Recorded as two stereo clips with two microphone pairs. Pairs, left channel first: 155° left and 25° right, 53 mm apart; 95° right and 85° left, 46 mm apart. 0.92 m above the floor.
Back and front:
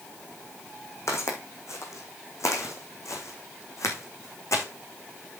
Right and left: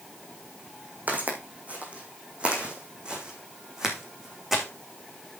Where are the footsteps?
135° left, 3.5 m; by 4.7 s 170° left, 3.5 m.